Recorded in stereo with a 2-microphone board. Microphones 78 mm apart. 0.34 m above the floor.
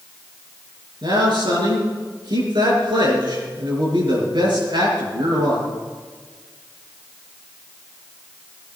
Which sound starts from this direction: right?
A man speaking, at 1.0 s.